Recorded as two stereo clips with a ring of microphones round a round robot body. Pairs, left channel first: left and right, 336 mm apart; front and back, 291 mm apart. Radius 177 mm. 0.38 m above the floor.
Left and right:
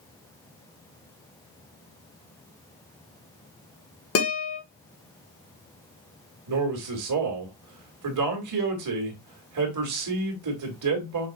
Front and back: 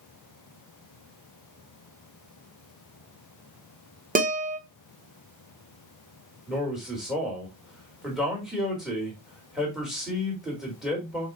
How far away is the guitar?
About 1.6 m.